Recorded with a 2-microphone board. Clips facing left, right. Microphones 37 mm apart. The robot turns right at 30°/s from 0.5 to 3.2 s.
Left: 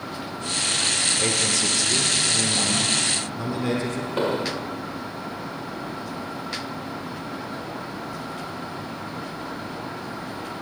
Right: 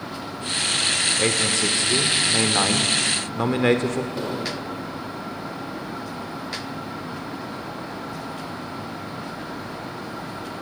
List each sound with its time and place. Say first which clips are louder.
1.2 s a man speaking: right 2 dB; 155° right, 1.7 m; by 4.1 s 95° right, 1.7 m
4.2 s an explosion: left 3 dB; 40° left (ahead or behind), 1.8 m